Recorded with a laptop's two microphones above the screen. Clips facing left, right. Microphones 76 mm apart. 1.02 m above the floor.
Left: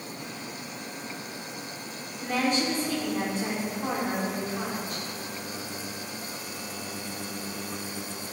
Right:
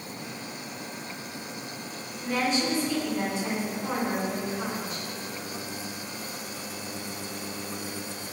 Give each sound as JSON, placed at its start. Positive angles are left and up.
{"t": 2.2, "sound": "a woman speaking", "side_deg": 50, "distance_m": 3.5}